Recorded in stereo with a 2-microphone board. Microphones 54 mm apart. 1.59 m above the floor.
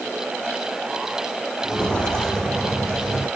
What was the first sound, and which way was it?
Footsteps, 20° left (ahead or behind).